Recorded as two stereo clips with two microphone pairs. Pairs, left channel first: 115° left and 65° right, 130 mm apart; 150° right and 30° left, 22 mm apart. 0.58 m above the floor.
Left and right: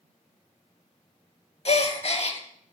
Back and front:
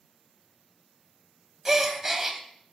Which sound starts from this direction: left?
A gasp, at 1.6 s.